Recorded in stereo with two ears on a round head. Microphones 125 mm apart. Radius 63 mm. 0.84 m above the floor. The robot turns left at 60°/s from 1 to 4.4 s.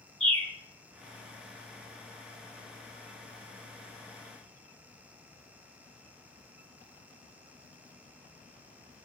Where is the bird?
5° left (ahead or behind), 1.3 m.